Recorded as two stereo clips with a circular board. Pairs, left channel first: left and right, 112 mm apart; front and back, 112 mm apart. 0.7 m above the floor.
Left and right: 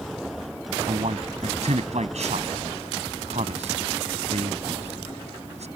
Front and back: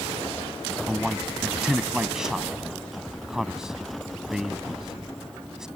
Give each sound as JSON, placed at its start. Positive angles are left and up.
{"t": 0.9, "sound": "a man speaking", "azimuth_deg": -95}